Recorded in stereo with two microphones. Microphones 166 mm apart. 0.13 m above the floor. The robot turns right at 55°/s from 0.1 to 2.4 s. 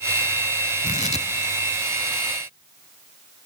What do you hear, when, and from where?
0.8 s tearing paper: 55° left (ahead or behind), 0.5 m; by 1.3 s 35° left (ahead or behind), 0.5 m